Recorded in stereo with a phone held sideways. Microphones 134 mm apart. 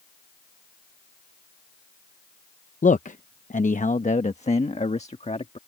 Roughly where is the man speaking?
Left.